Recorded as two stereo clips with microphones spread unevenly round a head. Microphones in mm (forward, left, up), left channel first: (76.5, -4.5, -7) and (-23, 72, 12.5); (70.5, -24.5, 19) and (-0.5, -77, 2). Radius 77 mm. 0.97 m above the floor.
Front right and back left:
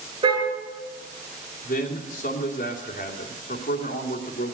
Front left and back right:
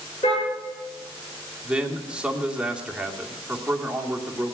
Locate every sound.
0.2 s a car horn: 90° left, 7.5 m
1.6 s a man speaking: 65° right, 2.5 m